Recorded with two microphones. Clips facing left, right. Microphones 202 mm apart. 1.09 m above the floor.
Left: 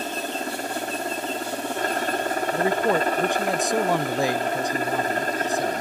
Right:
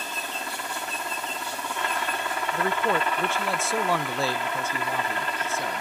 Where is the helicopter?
40° left (ahead or behind).